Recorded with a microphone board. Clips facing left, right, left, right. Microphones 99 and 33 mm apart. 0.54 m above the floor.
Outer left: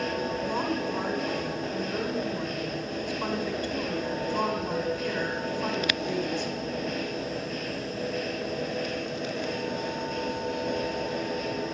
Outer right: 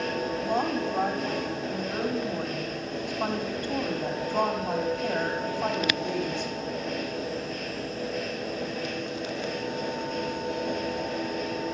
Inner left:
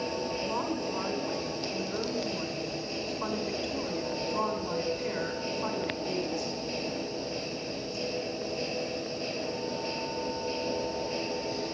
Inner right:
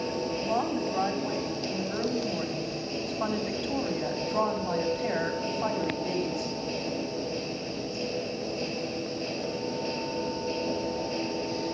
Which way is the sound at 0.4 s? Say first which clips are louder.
Outer right 4 dB, inner right 6 dB; 70° right (ahead or behind).